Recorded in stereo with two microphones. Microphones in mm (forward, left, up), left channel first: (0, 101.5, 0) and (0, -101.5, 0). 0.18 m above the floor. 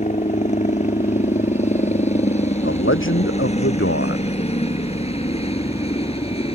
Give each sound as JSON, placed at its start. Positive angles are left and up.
{"t": 0.0, "sound": "a helicopter", "side_deg": 35}
{"t": 2.6, "sound": "a man speaking", "side_deg": 80}